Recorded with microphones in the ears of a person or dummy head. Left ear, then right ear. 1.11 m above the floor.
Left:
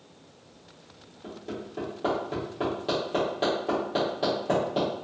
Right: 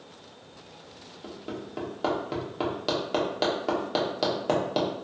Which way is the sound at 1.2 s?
40° right (ahead or behind).